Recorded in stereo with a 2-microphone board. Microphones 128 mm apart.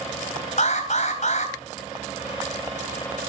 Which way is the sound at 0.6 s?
60° left (ahead or behind).